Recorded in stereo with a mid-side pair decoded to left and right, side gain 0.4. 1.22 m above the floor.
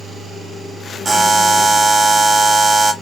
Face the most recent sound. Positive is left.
turn(degrees=-35)